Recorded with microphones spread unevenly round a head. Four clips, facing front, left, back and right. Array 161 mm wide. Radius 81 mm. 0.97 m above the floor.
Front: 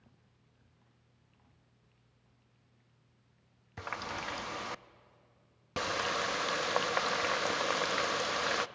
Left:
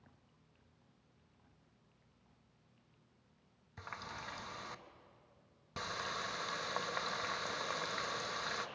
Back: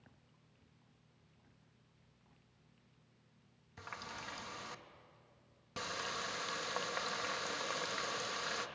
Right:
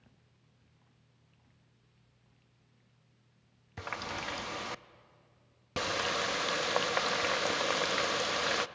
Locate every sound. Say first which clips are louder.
3.8 s a running tap: right 8 dB, front 9 dB; 55° right, 0.5 m